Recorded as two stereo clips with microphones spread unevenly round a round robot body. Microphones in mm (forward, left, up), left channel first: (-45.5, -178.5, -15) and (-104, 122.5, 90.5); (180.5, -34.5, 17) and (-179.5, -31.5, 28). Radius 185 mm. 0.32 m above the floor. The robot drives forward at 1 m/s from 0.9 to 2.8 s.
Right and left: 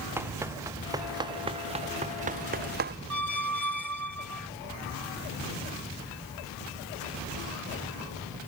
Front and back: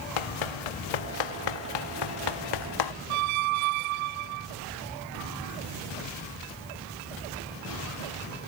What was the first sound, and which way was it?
Running footsteps, 20° left.